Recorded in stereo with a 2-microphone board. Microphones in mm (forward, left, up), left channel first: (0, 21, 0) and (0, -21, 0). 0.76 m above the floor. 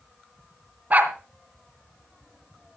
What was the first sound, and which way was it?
A dog barking, 40° right (ahead or behind).